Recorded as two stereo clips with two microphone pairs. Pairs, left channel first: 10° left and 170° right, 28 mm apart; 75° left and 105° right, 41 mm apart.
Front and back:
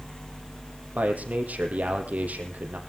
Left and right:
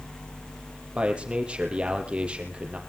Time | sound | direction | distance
0.9 | a man speaking | 170° right | 5 m